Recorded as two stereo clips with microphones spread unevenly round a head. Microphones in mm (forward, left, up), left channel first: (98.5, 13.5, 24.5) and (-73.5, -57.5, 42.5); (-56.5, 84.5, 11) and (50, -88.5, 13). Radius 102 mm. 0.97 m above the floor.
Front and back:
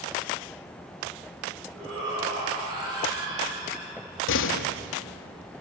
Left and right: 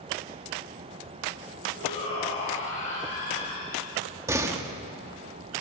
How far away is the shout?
About 8 m.